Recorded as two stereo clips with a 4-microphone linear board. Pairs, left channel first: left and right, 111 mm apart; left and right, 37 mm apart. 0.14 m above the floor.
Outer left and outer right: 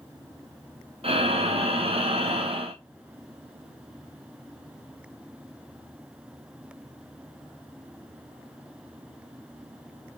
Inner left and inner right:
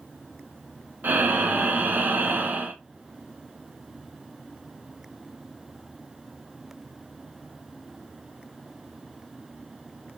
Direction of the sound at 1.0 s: 60° right (ahead or behind).